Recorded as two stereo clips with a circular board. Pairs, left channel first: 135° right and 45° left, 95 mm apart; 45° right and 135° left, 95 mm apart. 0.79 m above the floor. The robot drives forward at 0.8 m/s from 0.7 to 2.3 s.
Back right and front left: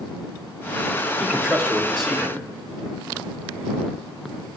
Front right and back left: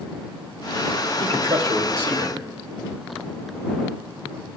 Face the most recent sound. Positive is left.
turn(degrees=140)